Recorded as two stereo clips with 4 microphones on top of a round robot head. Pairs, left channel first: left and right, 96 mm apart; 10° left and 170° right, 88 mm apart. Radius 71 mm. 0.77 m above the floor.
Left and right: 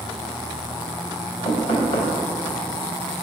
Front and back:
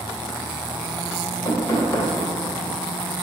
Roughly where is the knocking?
Left.